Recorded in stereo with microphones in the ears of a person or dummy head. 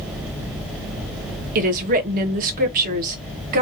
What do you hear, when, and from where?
1.6 s a woman speaking: 45° right (ahead or behind), 1.1 m